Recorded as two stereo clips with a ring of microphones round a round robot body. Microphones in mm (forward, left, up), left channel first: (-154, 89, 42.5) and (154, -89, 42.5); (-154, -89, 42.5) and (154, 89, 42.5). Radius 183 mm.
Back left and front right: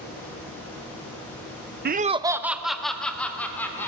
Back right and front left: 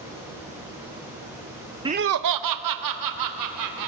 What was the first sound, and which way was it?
Laughter, 35° right.